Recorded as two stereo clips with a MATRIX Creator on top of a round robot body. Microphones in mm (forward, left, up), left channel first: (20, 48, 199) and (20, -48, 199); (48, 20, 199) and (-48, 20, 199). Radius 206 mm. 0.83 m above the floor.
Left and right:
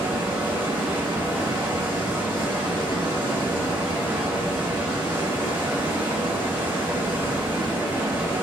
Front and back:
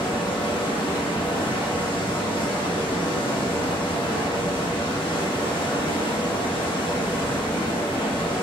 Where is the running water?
25° right, 1.2 m.